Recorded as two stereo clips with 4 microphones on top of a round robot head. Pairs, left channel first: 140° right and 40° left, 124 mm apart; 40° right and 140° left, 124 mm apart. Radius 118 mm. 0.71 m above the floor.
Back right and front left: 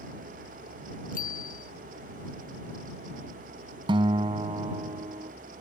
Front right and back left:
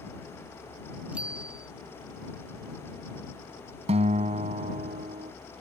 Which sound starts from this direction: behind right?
A bicycle bell, at 1.1 s.